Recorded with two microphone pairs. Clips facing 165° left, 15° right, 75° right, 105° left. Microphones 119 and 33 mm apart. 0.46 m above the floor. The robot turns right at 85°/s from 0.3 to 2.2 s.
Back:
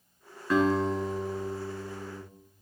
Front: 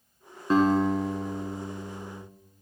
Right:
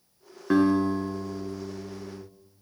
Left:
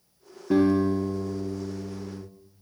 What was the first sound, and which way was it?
A guitar, 80° right.